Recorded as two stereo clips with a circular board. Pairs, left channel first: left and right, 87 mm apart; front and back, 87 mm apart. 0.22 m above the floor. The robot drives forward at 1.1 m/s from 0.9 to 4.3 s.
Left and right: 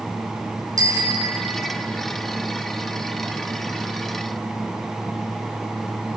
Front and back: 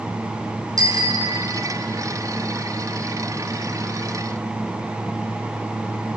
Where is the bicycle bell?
135° right, 3 m; by 1.9 s 145° right, 4 m.